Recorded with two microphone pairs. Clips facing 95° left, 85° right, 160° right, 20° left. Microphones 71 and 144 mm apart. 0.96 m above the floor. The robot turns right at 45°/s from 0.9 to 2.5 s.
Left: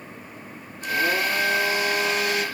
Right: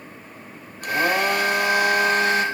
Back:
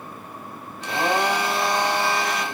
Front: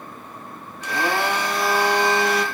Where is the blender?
100° right, 1.6 m; by 2.5 s 30° right, 1.6 m.